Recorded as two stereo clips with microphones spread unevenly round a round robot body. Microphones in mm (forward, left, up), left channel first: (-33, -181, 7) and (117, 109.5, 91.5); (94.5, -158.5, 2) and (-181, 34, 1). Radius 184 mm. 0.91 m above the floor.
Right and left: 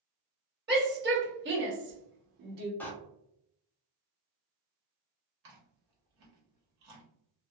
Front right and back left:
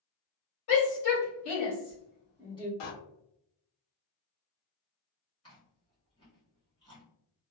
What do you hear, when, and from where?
0.7 s a shout: straight ahead, 1.7 m; by 2.7 s 35° left, 0.9 m
2.8 s a door slam: 35° right, 0.7 m
5.4 s chewing: 40° left, 1.3 m